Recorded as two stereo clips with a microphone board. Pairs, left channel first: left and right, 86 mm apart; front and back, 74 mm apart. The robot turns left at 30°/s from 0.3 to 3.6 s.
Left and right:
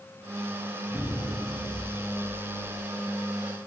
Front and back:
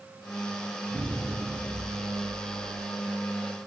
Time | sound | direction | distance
0.9 | an explosion | 145° right | 1.4 m